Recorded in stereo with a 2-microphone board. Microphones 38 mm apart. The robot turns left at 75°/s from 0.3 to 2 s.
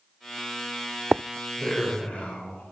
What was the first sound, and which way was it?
A man speaking, 165° left.